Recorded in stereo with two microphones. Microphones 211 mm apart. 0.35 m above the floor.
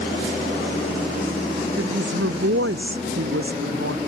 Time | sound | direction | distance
1.8 | a woman speaking | 85° right | ?